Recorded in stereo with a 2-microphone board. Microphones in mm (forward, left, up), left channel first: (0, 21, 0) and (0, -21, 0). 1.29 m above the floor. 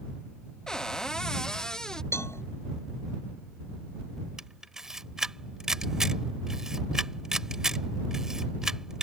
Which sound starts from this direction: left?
A cowbell, at 2.1 s.